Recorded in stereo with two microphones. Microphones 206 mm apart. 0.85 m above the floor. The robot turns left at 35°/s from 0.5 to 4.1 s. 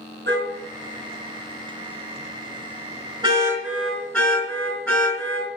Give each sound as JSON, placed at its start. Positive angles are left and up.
{"t": 0.3, "sound": "a car horn", "side_deg": -60, "distance_m": 5.0}